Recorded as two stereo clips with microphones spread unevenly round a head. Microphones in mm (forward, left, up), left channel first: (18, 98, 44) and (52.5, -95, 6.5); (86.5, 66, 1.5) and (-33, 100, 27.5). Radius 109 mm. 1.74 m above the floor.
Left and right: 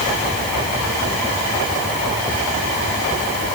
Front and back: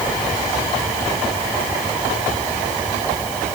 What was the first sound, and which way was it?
Only background noise.